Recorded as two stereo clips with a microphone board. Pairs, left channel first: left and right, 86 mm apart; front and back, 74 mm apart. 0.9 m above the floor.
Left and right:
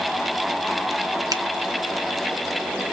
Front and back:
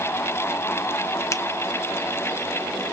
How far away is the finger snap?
About 1.0 m.